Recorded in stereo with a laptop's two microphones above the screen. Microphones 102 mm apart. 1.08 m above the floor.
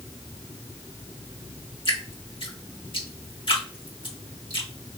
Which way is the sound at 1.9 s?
55° left (ahead or behind).